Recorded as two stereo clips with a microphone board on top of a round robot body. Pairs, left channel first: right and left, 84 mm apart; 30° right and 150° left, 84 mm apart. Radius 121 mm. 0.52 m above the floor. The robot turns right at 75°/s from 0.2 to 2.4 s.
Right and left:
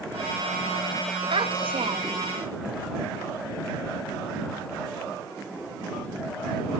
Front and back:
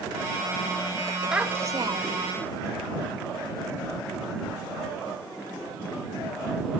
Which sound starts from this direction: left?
A child speaking, at 1.3 s.